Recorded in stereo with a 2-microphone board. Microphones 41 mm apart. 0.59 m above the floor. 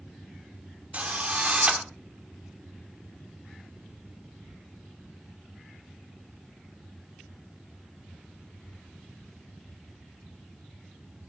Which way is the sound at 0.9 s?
30° right (ahead or behind).